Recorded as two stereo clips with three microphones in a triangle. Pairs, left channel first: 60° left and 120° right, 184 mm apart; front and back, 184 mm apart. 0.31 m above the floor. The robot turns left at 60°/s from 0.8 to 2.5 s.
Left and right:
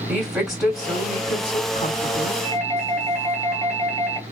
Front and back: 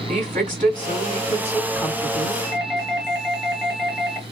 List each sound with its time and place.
0.1 s a woman speaking: 155° left, 2 m; by 2.3 s 60° left, 2 m
2.4 s a doorbell: 80° right, 1.9 m; by 4.2 s 85° right, 1.9 m